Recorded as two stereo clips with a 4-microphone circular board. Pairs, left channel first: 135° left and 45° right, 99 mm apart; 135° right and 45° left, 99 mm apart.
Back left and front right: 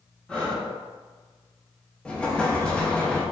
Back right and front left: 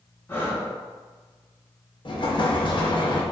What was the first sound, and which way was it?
Breathing, 160° right.